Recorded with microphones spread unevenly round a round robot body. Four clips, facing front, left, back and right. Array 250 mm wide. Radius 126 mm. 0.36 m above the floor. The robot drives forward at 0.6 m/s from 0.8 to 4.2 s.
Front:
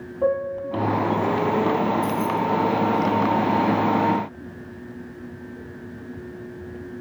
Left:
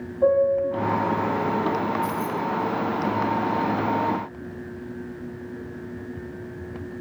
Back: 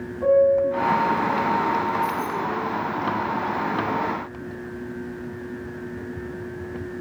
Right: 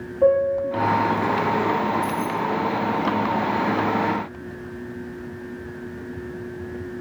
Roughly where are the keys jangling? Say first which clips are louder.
Right 2 dB, front 2 dB; ahead.